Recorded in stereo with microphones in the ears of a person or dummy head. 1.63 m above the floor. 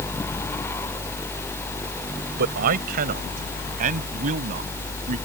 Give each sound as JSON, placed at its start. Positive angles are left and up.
{"t": 2.4, "sound": "a man speaking", "side_deg": -50}